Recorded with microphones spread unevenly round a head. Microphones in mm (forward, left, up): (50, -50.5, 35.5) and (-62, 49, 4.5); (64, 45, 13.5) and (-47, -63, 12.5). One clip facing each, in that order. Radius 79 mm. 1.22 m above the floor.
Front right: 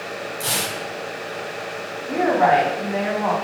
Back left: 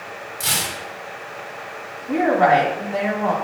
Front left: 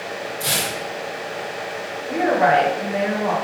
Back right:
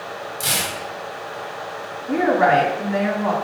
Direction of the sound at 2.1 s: 140° right.